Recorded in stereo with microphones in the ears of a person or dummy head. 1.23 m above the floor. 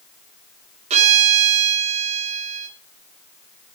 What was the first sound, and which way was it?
A violin, 35° right (ahead or behind).